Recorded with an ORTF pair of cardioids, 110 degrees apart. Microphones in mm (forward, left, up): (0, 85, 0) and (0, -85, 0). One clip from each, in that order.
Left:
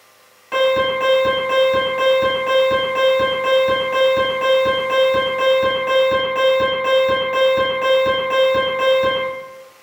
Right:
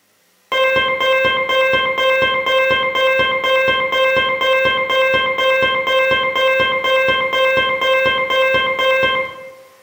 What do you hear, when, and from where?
0.5 s an alarm: 55° right, 0.8 m